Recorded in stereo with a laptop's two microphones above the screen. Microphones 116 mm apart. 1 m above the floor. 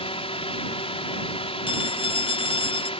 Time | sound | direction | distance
0.0 | a drone | 55° left (ahead or behind) | ?
1.7 | a phone ringing | 50° left (ahead or behind) | ?